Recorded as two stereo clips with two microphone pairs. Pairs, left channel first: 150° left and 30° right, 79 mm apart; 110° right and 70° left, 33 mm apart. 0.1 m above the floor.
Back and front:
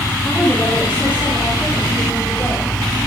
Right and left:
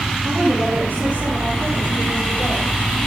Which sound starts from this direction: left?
A woman speaking, at 0.2 s.